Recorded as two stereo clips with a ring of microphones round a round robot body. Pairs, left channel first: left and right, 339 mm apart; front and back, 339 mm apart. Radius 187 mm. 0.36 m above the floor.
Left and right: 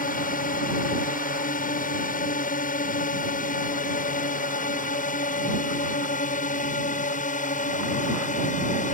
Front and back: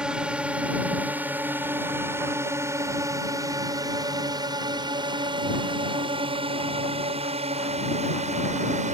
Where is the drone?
95° left; by 8.9 s 130° left.